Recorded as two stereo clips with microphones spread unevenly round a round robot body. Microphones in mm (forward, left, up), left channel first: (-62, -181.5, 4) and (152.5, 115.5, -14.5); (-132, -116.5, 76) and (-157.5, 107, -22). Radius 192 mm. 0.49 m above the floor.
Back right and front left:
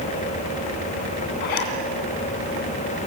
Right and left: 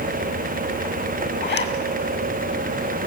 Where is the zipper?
130° right, 2.5 m.